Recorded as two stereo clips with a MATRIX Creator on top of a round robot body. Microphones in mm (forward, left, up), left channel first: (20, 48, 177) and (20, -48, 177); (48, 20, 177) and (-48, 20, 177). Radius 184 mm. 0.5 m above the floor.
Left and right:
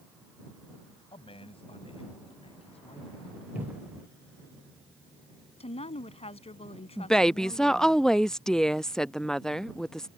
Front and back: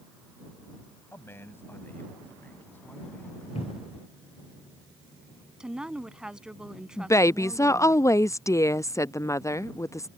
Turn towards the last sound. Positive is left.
turn(degrees=10)